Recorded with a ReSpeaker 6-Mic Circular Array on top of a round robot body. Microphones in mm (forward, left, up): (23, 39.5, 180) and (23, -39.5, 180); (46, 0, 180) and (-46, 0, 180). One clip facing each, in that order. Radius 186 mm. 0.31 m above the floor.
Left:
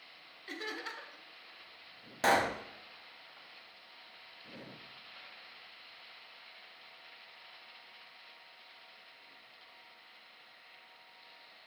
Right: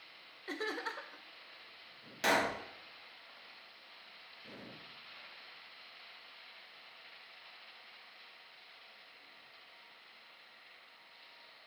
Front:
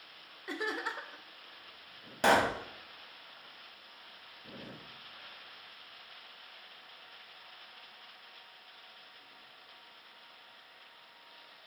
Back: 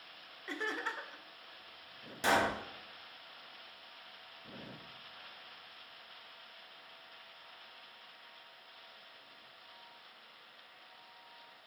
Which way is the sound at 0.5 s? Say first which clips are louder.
Right 3 dB, front 2 dB; 75° right.